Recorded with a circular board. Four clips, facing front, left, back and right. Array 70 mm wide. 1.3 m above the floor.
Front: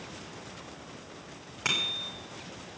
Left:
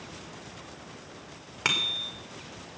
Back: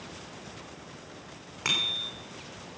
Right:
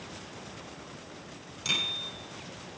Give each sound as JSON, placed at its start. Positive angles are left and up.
{"t": 1.6, "sound": "a bicycle bell", "azimuth_deg": 90, "distance_m": 3.5}